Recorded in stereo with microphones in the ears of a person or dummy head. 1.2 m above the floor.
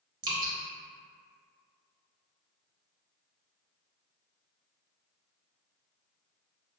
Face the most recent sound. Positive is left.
turn(degrees=-20)  # may be behind; listen again after turning